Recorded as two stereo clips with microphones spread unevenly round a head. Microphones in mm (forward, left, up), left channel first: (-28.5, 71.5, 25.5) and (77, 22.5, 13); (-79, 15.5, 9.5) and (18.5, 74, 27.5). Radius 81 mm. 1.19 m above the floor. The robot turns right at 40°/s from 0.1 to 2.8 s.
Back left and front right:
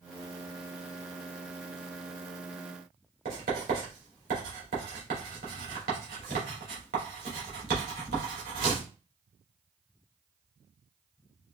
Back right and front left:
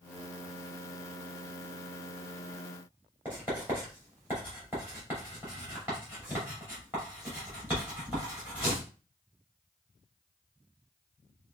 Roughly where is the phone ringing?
No phone ringing in this recording.